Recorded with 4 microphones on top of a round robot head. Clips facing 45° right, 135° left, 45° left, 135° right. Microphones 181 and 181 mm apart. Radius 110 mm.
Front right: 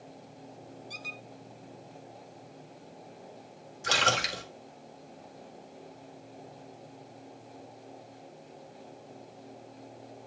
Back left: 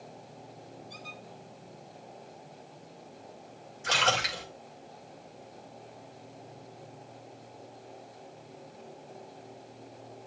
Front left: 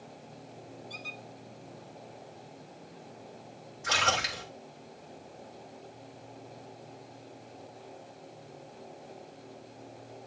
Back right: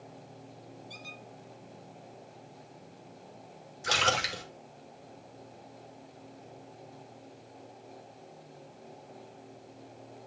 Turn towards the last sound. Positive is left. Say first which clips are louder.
# even, back right 1 dB
turn(degrees=-90)